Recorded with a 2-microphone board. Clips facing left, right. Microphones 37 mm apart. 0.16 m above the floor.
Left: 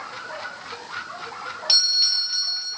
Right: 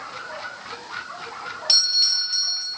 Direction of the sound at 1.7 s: 10° left (ahead or behind).